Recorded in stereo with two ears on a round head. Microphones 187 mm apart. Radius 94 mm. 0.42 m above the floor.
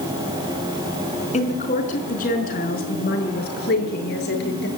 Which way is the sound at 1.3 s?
35° left (ahead or behind).